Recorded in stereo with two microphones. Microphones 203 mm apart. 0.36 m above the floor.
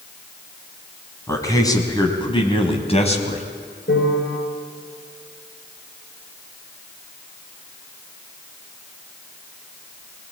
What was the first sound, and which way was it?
A man speaking, 15° left (ahead or behind).